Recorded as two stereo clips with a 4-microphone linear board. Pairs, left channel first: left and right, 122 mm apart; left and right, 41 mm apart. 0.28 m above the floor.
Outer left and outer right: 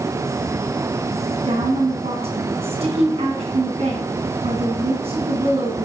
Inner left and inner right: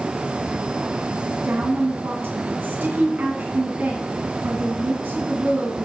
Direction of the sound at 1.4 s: 60° right (ahead or behind).